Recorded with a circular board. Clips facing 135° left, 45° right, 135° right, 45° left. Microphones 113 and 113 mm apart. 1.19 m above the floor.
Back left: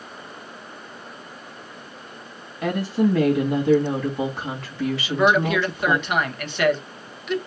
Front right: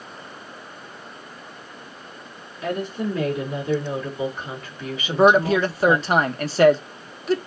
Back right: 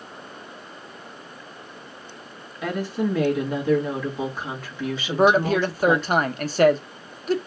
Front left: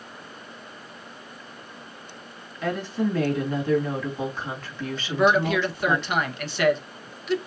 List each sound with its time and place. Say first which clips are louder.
2.6 s a woman speaking: back left 5 dB, back right 1 dB; 145° left, 1.8 m
5.1 s a man speaking: front right 4 dB, back right 2 dB; 95° right, 0.7 m